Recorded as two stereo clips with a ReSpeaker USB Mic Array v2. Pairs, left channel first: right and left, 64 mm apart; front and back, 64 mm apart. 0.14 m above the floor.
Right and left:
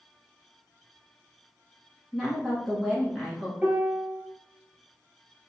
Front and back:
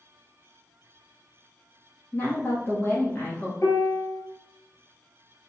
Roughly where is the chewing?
I don't hear chewing.